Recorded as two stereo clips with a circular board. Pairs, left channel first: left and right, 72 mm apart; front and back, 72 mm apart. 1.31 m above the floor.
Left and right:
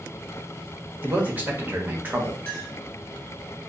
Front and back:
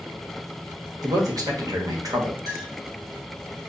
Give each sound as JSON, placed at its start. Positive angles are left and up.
{"t": 1.0, "sound": "a man speaking", "azimuth_deg": -155, "distance_m": 1.1}
{"t": 2.5, "sound": "a clink", "azimuth_deg": 160, "distance_m": 2.5}